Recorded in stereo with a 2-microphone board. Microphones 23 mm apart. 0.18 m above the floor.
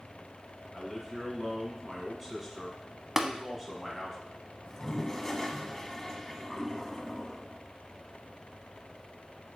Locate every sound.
0.7 s a man speaking: 5° right (ahead or behind), 1.8 m
3.2 s tapping: 15° right (ahead or behind), 0.6 m
4.7 s a toilet flushing: 20° left (ahead or behind), 0.9 m